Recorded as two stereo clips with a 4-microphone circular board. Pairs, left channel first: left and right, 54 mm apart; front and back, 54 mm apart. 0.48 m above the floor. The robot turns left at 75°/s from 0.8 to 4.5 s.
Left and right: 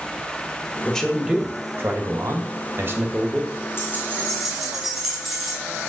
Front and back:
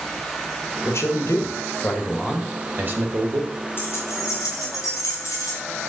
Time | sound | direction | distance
0.8 | a man speaking | 20° left | 1.4 m
3.8 | keys jangling | 50° left | 2.5 m